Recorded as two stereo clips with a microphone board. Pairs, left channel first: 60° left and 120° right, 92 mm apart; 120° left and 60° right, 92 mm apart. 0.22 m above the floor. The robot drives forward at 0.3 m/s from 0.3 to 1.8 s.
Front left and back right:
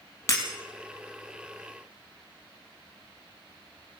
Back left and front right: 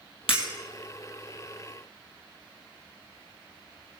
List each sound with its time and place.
0.3 s breaking glass: 120° left, 3.5 m